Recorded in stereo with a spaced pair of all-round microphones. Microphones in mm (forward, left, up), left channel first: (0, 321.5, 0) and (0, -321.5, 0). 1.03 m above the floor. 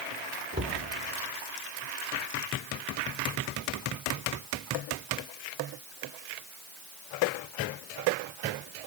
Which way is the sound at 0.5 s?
20° right (ahead or behind).